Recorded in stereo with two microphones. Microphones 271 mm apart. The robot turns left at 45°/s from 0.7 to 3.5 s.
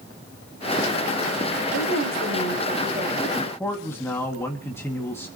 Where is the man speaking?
5° left (ahead or behind), 2.0 m; by 5.3 s 10° left (ahead or behind), 2.0 m.